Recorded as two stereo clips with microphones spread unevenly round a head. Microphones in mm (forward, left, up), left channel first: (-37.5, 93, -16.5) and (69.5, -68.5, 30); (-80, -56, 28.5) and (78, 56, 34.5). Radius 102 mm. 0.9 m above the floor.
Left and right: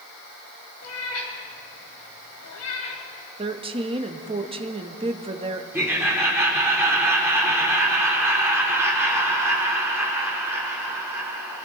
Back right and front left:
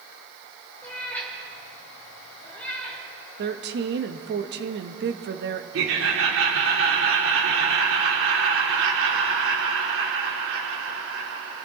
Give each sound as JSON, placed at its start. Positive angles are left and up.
{"t": 0.8, "sound": "a cat meowing", "azimuth_deg": 135, "distance_m": 3.0}
{"t": 3.4, "sound": "a woman speaking", "azimuth_deg": 10, "distance_m": 1.1}
{"t": 5.7, "sound": "laughter", "azimuth_deg": 25, "distance_m": 2.5}